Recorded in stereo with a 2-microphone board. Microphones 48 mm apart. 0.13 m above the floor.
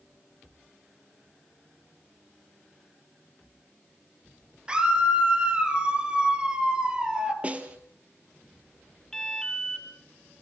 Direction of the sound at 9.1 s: 15° left (ahead or behind).